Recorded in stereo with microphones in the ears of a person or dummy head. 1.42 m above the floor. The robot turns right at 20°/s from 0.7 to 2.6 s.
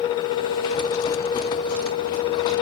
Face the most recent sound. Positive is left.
No sound to turn to.